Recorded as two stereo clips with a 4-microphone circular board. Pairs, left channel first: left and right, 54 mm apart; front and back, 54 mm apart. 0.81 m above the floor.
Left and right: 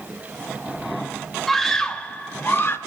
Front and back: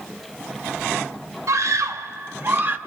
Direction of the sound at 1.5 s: 175° left.